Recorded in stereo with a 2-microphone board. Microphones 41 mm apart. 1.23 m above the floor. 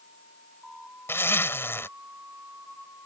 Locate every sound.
1.1 s a zipper: 80° left